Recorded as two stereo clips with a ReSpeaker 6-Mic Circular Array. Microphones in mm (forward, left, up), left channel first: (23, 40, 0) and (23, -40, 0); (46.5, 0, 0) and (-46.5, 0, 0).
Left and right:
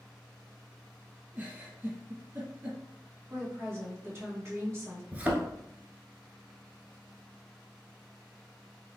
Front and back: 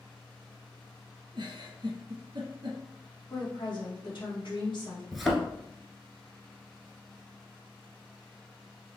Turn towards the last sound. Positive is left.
turn(degrees=-90)